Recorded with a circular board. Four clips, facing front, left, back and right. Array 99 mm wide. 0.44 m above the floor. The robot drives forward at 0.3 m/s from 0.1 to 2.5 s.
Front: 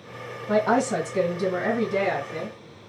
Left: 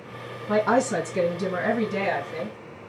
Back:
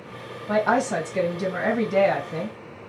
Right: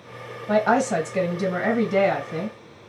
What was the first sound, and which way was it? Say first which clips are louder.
A woman speaking: right 2 dB, even; 105° right.